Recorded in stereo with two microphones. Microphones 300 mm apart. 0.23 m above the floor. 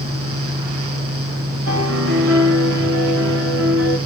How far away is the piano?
About 7 m.